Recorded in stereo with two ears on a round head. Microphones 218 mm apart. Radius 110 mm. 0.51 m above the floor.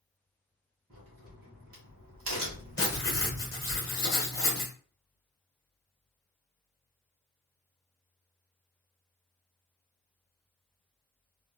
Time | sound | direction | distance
0.9 | a crack | 55° right (ahead or behind) | 1.5 m
2.8 | writing | 15° left (ahead or behind) | 1.4 m